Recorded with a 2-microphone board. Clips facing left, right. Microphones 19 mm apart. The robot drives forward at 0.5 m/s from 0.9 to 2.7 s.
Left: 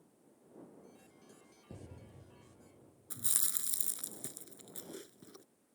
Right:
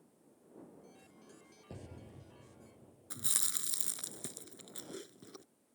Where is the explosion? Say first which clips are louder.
Right 2 dB; 30° right (ahead or behind); by 3.1 s 25° right (ahead or behind).